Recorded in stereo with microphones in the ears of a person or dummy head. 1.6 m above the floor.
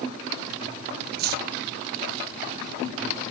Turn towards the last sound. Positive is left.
turn(degrees=-55)  # may be behind; listen again after turning